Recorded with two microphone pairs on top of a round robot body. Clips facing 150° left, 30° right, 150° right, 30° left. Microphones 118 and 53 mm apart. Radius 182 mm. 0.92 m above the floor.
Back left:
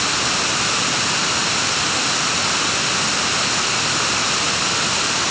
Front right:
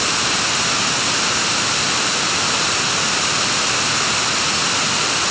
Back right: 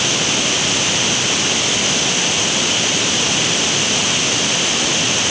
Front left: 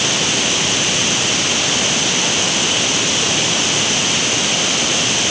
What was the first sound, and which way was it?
Only background noise.